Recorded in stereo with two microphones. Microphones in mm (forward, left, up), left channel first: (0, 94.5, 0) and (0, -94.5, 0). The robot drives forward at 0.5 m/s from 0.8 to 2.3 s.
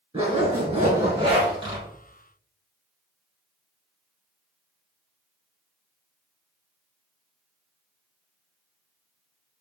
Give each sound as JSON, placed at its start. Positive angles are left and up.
{"t": 0.1, "sound": "a zipper", "side_deg": -30, "distance_m": 1.7}